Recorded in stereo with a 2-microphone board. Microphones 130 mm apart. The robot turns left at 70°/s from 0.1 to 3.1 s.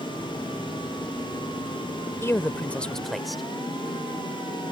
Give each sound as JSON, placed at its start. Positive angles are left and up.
{"t": 2.2, "sound": "a man speaking", "side_deg": 20}